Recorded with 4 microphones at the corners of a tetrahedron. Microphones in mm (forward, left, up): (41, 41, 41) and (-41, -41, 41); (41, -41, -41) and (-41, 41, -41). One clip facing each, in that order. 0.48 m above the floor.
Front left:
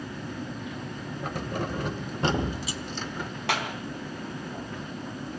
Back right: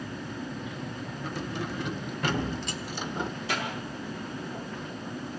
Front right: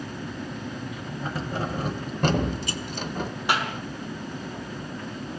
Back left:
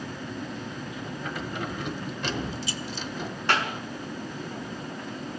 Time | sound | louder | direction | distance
1.2 | keys jangling | front left 3 dB, front right 4 dB | 15° left | 1.9 m
3.5 | a clap | front left 5 dB, even | 35° left | 4 m